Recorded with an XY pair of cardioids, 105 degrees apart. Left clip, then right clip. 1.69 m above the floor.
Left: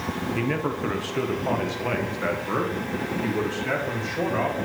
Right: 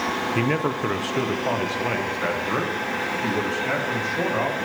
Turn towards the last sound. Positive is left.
turn(degrees=-5)